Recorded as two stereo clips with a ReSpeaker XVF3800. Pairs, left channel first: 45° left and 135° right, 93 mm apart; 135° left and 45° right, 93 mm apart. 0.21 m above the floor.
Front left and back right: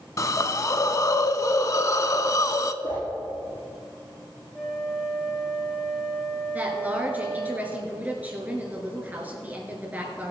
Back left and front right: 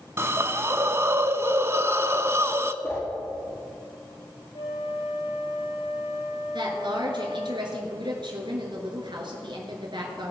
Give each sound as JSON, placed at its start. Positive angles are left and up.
{"t": 0.2, "sound": "a hiss", "azimuth_deg": 5, "distance_m": 0.5}
{"t": 2.8, "sound": "a whoosh", "azimuth_deg": 75, "distance_m": 4.0}
{"t": 4.5, "sound": "a flute", "azimuth_deg": 140, "distance_m": 1.5}
{"t": 6.5, "sound": "a woman speaking", "azimuth_deg": -65, "distance_m": 2.5}